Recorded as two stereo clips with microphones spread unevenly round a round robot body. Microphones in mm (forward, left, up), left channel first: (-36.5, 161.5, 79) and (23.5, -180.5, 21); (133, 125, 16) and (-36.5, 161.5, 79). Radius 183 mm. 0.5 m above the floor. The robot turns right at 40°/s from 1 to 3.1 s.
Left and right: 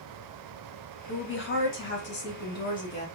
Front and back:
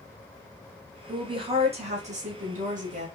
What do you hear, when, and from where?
1.1 s a woman speaking: 90° left, 1.1 m; by 3.1 s 170° left, 1.1 m